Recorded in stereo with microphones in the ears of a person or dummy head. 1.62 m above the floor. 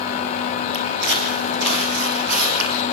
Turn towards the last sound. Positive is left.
turn(degrees=-65)  # may be behind; listen again after turning